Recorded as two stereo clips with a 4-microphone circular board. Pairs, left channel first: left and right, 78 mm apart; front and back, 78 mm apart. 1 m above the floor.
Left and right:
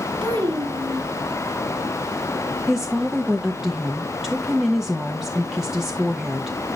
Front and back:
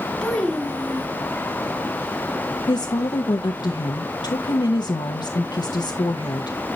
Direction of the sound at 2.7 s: 5° right.